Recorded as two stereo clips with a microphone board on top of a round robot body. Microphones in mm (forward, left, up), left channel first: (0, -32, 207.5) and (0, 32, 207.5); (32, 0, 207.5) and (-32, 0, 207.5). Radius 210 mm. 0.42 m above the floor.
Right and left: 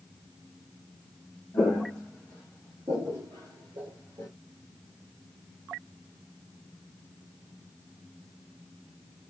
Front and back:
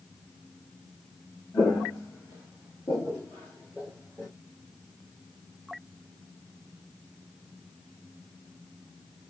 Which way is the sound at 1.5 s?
35° right.